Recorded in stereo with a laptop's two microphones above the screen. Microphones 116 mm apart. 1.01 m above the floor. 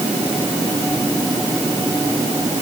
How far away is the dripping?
No dripping in this recording.